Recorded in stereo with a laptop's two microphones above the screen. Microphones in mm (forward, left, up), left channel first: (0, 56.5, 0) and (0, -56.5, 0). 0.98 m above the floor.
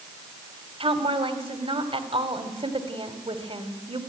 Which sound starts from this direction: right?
A woman speaking, at 0.8 s.